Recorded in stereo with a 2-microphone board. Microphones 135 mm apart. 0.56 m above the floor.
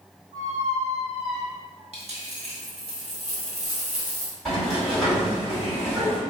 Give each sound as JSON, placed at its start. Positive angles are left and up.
{"t": 0.3, "sound": "a squeak", "side_deg": -25, "distance_m": 1.5}
{"t": 1.9, "sound": "a dropped coin", "side_deg": -55, "distance_m": 1.1}
{"t": 4.5, "sound": "a sliding door", "side_deg": 0, "distance_m": 2.0}